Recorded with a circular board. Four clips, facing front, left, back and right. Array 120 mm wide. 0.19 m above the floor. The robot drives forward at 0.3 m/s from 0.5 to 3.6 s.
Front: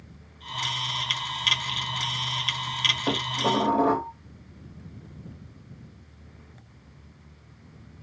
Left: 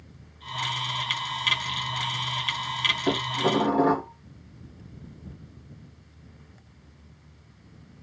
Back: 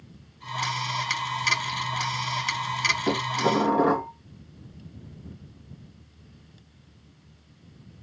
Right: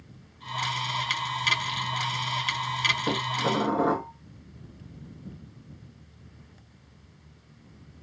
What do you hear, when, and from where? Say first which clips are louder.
3.1 s dishes clattering: left 4 dB, back 1 dB; 145° left, 2 m